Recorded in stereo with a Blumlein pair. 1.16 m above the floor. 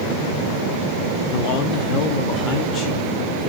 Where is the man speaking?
35° left, 1.6 m.